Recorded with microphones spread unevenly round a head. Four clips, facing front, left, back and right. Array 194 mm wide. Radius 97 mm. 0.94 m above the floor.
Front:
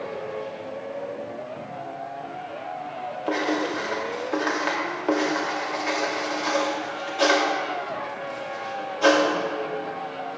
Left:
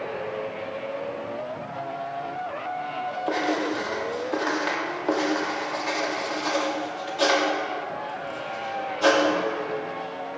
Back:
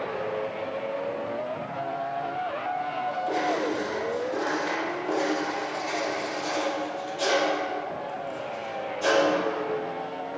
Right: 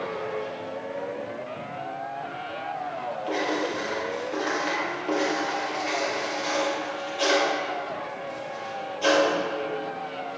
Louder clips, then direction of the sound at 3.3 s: Left 2 dB, front 3 dB; 35° left.